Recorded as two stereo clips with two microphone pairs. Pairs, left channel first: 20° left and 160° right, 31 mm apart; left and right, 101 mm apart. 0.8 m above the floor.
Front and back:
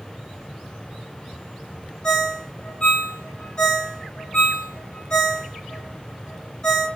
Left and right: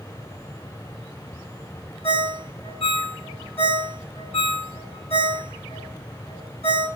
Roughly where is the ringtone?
Left.